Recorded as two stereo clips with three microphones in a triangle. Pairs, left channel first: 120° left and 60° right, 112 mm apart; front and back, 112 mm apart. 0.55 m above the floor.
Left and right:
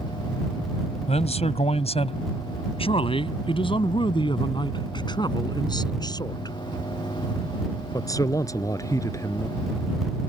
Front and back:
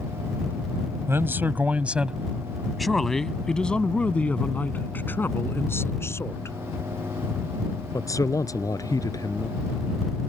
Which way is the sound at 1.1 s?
110° left.